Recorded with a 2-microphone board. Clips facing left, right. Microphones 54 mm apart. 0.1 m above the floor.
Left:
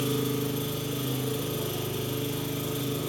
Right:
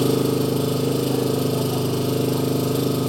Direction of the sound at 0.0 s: 70° right (ahead or behind).